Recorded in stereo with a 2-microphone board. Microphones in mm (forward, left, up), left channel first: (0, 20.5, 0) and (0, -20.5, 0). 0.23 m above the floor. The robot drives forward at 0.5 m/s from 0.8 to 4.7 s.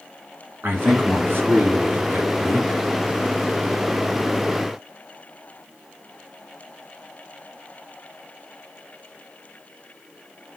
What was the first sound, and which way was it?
A man speaking, 60° right (ahead or behind).